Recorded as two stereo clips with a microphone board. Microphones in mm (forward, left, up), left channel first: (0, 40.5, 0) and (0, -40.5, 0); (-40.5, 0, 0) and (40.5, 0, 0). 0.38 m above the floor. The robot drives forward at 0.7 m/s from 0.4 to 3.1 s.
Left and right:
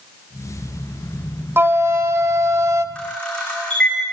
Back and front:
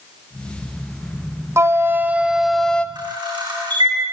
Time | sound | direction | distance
1.6 | a flute | 40° right | 1.1 m
3.0 | a camera shutter | 15° left | 5 m